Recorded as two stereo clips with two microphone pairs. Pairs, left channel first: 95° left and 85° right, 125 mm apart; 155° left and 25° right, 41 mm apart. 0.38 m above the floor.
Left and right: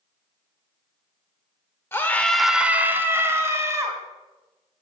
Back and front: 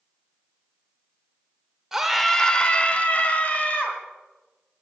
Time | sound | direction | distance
1.9 | a scream | 40° left | 0.9 m